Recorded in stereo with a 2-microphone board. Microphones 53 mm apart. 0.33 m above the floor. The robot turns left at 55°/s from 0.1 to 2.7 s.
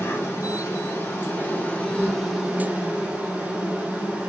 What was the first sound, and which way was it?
An insect, 115° left.